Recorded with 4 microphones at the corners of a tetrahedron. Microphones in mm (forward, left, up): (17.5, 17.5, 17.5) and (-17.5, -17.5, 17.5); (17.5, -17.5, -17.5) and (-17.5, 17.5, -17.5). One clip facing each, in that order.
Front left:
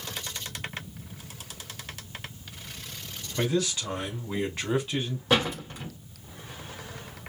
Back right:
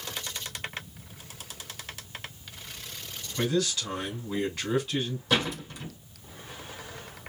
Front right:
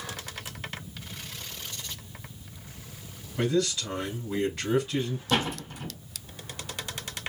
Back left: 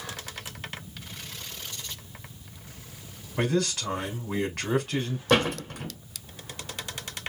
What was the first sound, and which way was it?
A man speaking, 105° left.